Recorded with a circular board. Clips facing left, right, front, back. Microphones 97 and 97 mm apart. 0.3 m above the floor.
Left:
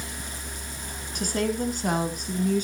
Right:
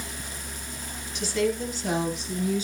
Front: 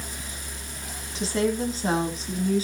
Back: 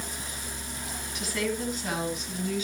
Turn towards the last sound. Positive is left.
turn(degrees=55)